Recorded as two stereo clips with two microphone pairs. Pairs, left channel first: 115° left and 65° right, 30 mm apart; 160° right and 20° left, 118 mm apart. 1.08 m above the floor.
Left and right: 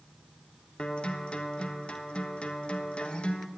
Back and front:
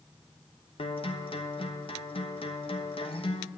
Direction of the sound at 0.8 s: 165° left.